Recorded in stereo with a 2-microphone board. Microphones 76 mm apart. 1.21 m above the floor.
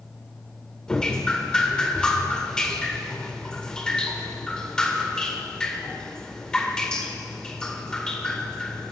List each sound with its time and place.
0.9 s dripping: 10° left (ahead or behind), 1.6 m